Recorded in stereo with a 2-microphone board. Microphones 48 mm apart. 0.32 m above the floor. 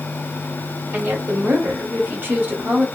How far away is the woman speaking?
About 1.7 m.